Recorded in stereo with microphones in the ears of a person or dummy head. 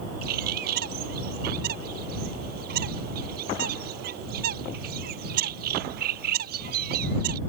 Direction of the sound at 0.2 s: 60° right (ahead or behind).